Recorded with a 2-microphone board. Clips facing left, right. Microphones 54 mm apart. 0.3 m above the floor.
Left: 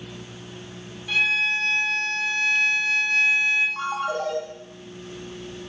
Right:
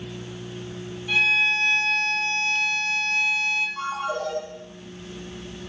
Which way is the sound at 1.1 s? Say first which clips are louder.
Right 1 dB; 5° right (ahead or behind).